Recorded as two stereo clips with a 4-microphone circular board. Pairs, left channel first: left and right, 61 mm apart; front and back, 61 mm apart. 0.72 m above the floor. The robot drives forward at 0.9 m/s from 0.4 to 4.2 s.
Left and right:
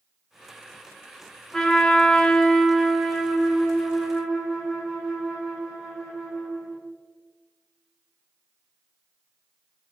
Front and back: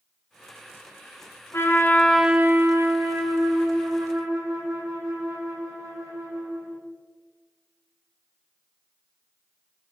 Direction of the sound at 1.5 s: 10° left.